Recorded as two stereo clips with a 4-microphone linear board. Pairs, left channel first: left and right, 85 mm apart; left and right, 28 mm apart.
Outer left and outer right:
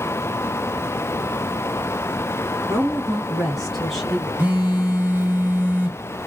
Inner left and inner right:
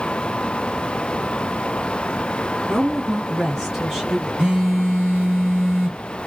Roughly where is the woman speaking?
Centre.